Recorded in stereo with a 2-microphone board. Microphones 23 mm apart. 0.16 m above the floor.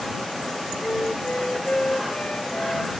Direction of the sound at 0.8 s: 65° left (ahead or behind).